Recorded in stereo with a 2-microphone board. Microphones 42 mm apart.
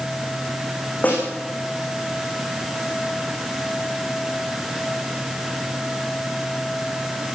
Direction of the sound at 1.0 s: 35° left (ahead or behind).